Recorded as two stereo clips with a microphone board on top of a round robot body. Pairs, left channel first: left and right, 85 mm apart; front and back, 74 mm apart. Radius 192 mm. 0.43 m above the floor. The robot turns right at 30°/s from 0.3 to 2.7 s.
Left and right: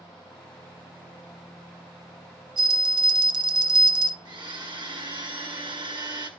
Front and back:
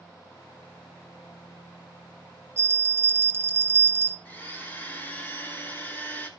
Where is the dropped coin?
No dropped coin in this recording.